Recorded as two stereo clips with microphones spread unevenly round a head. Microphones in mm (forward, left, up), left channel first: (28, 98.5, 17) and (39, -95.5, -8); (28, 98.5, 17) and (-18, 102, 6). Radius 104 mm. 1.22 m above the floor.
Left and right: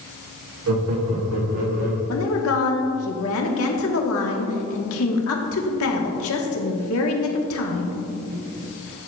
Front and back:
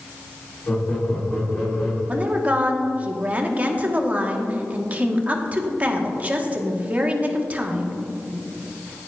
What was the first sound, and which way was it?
Laughter, 75° right.